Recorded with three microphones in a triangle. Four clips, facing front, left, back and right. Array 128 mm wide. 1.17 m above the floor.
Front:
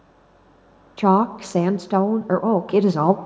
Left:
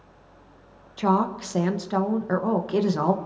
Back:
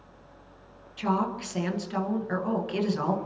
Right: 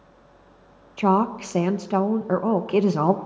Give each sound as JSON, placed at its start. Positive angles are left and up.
{"t": 1.0, "sound": "a woman speaking", "azimuth_deg": -15, "distance_m": 1.0}